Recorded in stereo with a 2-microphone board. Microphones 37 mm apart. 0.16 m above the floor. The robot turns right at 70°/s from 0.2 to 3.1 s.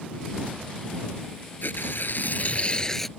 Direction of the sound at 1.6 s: 70° left.